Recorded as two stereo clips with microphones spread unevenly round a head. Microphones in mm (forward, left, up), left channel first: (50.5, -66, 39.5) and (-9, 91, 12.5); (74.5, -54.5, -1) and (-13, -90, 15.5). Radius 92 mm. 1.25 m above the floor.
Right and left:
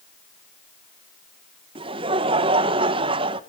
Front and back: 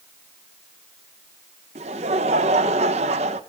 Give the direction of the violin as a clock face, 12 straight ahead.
No violin in this recording.